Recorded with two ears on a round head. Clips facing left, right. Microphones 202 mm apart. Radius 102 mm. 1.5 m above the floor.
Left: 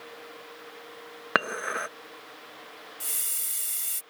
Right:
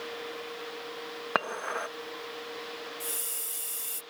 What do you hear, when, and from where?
1.4 s dishes clattering: 25° left (ahead or behind)
3.0 s a hiss: 25° left (ahead or behind)